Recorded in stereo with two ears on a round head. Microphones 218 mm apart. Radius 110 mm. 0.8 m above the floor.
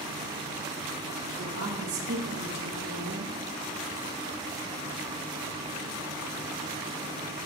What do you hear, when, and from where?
1.4 s a woman speaking: 45° right (ahead or behind), 1.6 m; by 3.3 s 80° right, 2.5 m